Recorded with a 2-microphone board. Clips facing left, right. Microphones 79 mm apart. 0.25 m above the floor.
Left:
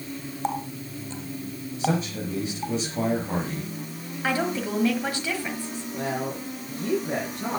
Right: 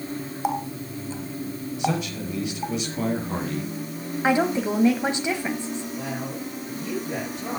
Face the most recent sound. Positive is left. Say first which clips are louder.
# left 2 dB
turn(degrees=70)  # may be behind; listen again after turning